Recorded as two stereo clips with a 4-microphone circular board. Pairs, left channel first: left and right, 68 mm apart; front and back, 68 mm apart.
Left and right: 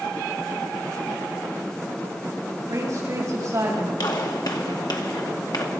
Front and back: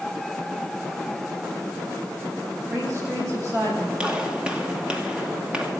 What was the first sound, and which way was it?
A woman speaking, 135° right.